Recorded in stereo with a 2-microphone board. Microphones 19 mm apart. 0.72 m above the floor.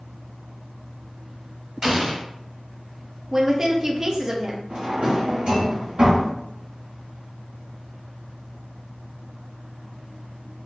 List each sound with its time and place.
1.8 s an explosion: 35° right (ahead or behind), 0.8 m
3.3 s a woman speaking: 35° right (ahead or behind), 0.5 m
4.7 s a drawer: 60° right (ahead or behind), 1.4 m